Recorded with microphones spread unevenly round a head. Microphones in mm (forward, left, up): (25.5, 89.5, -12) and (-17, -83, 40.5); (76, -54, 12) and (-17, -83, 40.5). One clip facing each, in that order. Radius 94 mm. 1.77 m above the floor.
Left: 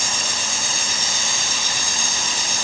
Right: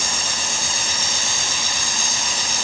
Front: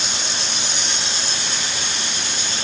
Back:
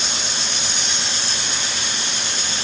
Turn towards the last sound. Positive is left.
No sound to turn to.